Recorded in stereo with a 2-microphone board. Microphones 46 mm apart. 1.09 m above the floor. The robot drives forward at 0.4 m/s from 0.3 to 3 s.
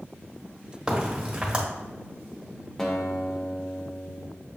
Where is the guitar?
5° left (ahead or behind), 0.7 m.